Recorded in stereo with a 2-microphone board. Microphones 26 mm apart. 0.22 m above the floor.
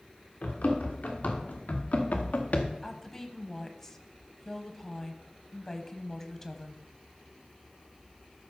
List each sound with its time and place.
0.4 s running footsteps: 80° left, 4 m
2.8 s a woman speaking: 15° left (ahead or behind), 1.0 m